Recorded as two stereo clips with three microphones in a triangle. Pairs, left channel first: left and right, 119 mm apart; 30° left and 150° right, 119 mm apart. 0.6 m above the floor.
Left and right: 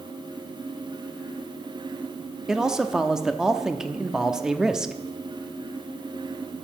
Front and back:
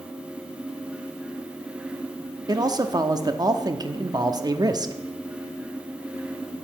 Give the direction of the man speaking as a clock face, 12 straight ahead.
6 o'clock.